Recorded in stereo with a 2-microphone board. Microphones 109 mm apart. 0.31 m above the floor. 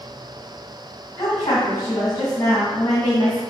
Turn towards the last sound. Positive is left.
turn(degrees=30)  # may be behind; listen again after turning